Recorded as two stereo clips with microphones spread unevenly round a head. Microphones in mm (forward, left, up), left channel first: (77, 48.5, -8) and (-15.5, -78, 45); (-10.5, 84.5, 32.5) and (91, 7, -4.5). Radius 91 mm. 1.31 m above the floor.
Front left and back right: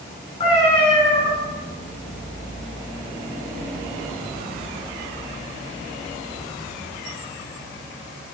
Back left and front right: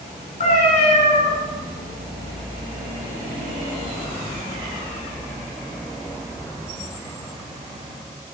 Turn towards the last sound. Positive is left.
turn(degrees=120)